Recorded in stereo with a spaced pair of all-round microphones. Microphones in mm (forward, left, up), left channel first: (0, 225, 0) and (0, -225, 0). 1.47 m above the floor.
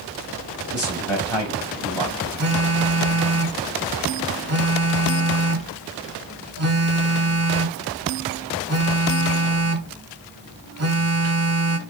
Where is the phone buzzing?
35° right (ahead or behind), 0.6 m.